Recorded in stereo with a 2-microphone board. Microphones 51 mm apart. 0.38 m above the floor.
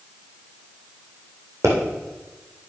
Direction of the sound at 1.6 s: 60° right (ahead or behind).